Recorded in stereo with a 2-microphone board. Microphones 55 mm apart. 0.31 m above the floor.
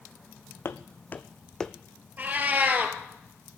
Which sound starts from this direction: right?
A cat meowing, at 2.2 s.